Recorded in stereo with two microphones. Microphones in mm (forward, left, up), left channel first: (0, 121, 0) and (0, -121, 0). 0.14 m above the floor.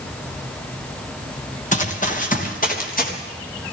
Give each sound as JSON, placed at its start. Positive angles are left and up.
{"t": 1.7, "sound": "running footsteps", "side_deg": 30, "distance_m": 3.0}